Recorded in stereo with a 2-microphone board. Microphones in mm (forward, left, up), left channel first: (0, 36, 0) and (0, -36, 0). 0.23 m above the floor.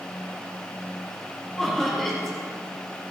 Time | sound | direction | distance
1.6 | laughter | 5° left (ahead or behind) | 5.5 m